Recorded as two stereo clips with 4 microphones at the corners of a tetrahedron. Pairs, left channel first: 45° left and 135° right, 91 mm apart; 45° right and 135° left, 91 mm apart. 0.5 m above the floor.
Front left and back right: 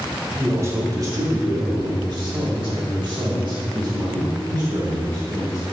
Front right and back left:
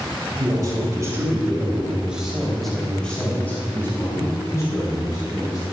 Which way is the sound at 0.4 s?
170° left.